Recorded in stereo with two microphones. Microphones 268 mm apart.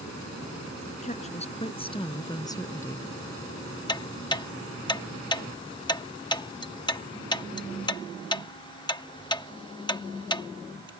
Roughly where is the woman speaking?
Left.